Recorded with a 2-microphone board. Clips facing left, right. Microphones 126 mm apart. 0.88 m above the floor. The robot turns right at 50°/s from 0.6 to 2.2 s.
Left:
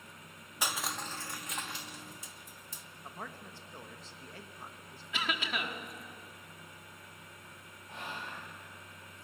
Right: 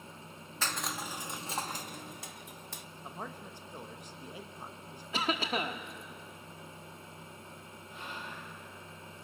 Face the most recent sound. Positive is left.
turn(degrees=80)